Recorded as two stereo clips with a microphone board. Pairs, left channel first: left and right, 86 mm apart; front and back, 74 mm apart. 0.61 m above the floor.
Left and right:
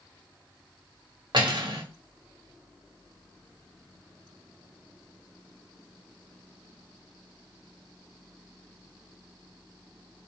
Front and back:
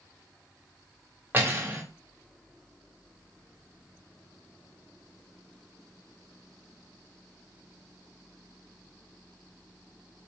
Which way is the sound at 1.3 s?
120° right.